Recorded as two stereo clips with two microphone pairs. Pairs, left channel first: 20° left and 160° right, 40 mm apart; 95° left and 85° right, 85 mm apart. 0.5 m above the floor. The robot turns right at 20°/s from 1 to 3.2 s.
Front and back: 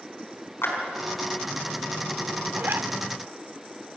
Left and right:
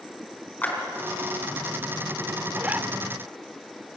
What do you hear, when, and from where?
0.6 s a clap: 25° left, 4.5 m
2.5 s a zipper: 160° right, 0.7 m; by 2.9 s 150° right, 0.7 m